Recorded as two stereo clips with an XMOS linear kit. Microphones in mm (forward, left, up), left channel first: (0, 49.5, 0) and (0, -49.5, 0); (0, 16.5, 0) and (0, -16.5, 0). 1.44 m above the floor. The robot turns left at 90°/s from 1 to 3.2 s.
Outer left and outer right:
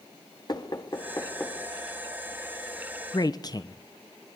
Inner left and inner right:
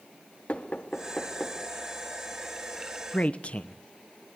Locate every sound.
0.5 s knocking: 45° left (ahead or behind), 2.5 m; by 1.6 s 5° right (ahead or behind), 2.5 m
3.1 s a man speaking: 50° left (ahead or behind), 1.0 m; by 3.8 s 40° left (ahead or behind), 1.0 m